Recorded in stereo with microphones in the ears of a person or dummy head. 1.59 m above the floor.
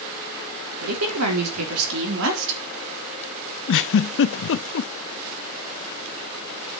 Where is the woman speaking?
85° right, 4 m; by 2.6 s 65° right (ahead or behind), 3.5 m.